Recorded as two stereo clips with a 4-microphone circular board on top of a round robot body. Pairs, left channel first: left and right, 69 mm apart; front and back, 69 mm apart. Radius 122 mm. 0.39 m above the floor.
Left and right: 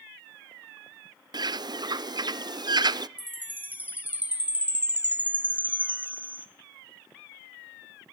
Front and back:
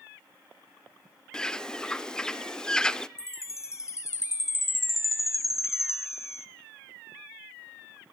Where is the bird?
80° right, 0.6 m.